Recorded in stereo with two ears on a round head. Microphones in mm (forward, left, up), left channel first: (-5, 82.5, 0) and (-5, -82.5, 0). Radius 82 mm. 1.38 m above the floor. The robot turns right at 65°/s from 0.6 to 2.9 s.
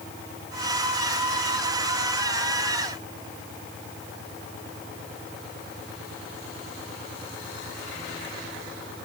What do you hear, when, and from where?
Only background noise.